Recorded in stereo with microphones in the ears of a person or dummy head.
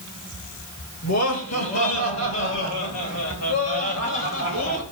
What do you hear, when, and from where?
1.0 s laughter: 80° left, 7.5 m; by 4.8 s 75° left (ahead or behind), 10 m